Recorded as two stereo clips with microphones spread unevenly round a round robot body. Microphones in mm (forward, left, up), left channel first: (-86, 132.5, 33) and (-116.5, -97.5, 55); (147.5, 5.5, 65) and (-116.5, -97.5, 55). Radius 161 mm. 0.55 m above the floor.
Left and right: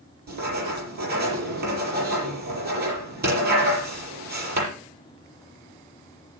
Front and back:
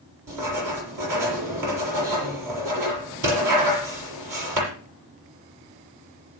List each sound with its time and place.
0.3 s writing: 145° right, 7 m